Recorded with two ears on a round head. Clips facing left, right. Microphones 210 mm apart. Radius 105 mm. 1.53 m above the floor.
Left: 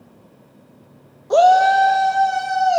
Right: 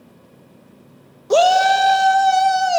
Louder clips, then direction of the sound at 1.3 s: Left 1 dB; 40° right (ahead or behind).